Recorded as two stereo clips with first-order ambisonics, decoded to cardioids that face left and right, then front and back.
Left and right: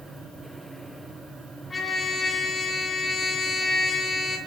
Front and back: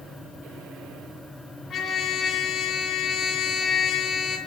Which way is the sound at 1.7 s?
25° left.